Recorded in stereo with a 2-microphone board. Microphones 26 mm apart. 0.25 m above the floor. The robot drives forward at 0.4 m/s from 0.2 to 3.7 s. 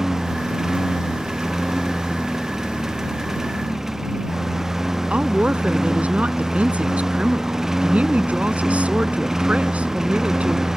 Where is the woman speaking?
60° right (ahead or behind).